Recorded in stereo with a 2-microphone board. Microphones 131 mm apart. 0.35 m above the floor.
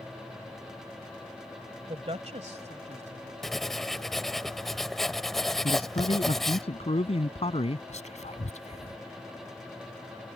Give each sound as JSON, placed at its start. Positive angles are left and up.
{"t": 1.9, "sound": "a woman speaking", "side_deg": -45}
{"t": 3.4, "sound": "writing", "side_deg": 0}
{"t": 5.6, "sound": "a man speaking", "side_deg": 50}
{"t": 7.9, "sound": "whispering", "side_deg": 60}